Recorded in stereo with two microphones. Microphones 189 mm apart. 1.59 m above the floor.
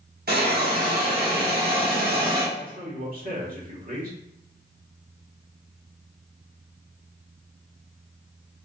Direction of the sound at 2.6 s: 50° right (ahead or behind).